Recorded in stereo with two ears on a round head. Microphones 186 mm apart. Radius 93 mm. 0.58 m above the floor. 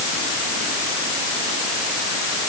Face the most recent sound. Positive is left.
No sound to turn to.